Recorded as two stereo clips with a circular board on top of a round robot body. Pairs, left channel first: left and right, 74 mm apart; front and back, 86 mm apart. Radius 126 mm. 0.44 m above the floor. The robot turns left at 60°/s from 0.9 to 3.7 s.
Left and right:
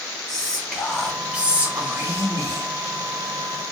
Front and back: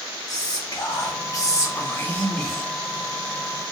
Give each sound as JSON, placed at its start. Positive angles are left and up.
{"t": 0.3, "sound": "whispering", "azimuth_deg": 10, "distance_m": 1.3}